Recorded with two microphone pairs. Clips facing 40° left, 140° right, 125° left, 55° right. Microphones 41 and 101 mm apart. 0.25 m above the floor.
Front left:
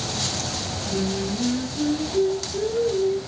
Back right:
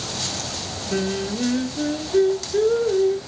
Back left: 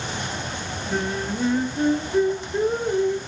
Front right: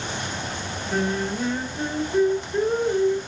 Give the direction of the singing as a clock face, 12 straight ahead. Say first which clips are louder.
Back right 2 dB, front right 2 dB; 5 o'clock.